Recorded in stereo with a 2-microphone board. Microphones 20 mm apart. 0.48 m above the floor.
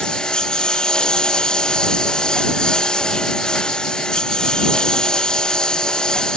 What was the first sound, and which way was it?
A lawn mower, 45° left (ahead or behind).